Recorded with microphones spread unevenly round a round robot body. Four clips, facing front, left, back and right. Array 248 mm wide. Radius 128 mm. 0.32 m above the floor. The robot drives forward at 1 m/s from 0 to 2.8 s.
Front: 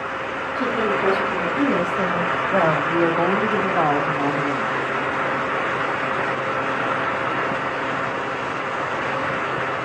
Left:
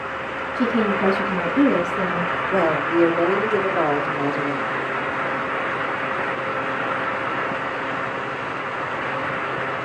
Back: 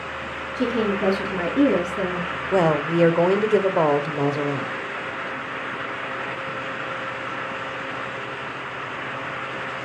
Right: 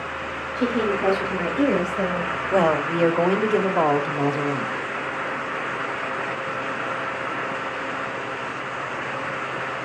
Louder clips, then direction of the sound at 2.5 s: Even, back 1 dB; 160° right.